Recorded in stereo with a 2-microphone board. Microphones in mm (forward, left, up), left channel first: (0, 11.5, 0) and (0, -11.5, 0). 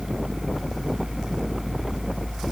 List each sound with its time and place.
Only background noise.